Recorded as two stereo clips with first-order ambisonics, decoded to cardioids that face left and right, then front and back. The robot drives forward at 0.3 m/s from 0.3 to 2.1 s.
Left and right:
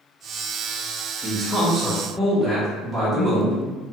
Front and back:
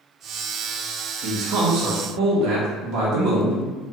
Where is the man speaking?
Straight behind, 0.5 m.